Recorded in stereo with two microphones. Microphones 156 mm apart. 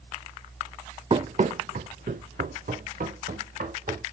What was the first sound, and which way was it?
Running footsteps, 40° right (ahead or behind).